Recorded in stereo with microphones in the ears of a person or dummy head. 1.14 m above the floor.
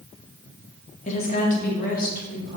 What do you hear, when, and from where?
1.1 s a woman speaking: 40° left (ahead or behind), 0.8 m; by 2.6 s 50° left (ahead or behind), 1.6 m